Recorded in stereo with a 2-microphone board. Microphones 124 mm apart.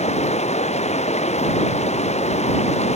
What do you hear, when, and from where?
0.0 s running water: 65° left (ahead or behind)